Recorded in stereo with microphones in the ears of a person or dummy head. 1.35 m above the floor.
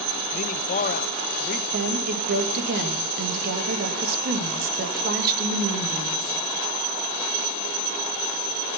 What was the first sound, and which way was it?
A man speaking, 40° left (ahead or behind).